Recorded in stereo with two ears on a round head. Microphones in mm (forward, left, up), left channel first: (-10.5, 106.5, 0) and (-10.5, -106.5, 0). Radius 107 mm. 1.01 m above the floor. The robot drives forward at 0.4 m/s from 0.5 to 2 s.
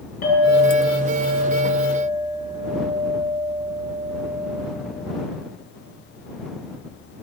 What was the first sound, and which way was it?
A clink, 35° left (ahead or behind).